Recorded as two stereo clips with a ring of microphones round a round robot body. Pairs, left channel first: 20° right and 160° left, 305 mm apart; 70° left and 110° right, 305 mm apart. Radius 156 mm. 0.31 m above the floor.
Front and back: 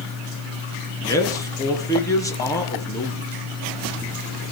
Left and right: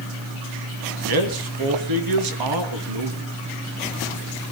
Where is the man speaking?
100° right, 3.5 m.